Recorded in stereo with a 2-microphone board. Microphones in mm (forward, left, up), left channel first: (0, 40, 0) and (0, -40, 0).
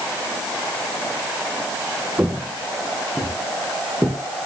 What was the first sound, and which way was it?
Footsteps, 15° right (ahead or behind).